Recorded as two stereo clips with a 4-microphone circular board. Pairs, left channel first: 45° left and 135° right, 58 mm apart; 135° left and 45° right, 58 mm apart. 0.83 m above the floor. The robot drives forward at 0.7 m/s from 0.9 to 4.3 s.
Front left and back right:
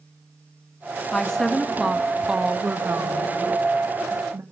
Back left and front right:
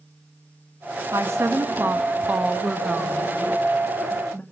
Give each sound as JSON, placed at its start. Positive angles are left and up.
{"t": 1.1, "sound": "a woman speaking", "azimuth_deg": -30, "distance_m": 1.4}